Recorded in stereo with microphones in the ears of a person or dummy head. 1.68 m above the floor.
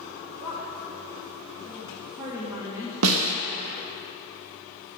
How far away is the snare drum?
About 0.6 m.